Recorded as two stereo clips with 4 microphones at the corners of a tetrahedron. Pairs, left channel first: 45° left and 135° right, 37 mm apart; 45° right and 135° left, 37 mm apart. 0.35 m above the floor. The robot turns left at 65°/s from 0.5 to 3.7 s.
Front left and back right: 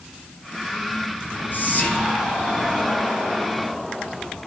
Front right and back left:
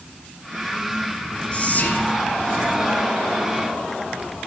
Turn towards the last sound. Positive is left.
turn(degrees=-125)